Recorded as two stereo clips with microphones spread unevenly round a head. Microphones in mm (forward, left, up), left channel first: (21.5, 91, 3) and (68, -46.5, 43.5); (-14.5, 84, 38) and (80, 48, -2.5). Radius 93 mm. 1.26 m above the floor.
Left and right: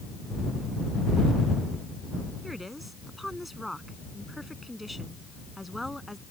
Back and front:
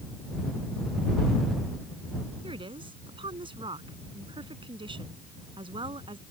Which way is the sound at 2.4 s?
15° left.